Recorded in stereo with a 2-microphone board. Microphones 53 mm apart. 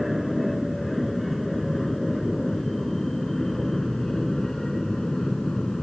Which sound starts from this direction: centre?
An aircraft, at 0.0 s.